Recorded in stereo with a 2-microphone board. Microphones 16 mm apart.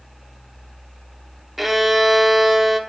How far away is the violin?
About 0.7 m.